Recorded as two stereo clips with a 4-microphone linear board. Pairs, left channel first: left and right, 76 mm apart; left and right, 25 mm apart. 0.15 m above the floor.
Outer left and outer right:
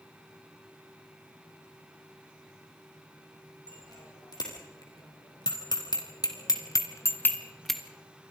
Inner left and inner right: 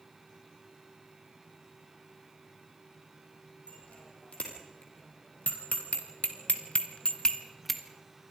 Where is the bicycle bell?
60° left (ahead or behind), 5.5 m; by 7.8 s 5° right (ahead or behind), 1.6 m.